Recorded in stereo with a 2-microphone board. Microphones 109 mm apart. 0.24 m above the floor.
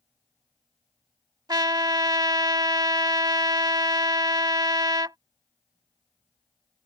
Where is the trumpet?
40° right (ahead or behind).